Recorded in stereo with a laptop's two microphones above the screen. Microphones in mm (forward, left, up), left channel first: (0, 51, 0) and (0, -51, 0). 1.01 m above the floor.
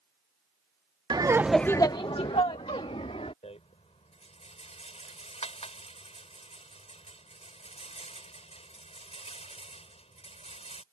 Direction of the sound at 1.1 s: 45° right (ahead or behind).